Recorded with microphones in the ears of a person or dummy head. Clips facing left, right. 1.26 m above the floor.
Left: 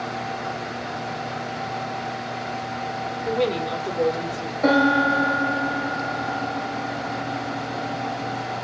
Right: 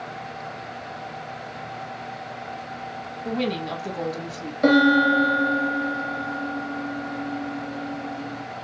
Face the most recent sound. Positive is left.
turn(degrees=-30)  # may be behind; listen again after turning